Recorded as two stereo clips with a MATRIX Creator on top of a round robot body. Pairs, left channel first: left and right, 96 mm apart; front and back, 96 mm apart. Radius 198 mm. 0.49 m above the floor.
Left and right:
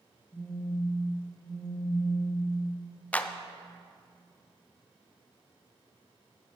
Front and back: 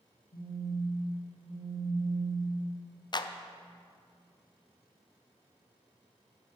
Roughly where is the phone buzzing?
Ahead.